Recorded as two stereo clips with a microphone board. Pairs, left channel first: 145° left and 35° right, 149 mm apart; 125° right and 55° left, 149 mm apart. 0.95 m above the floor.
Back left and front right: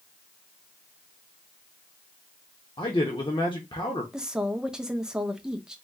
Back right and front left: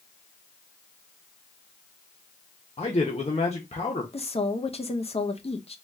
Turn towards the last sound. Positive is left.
turn(degrees=-115)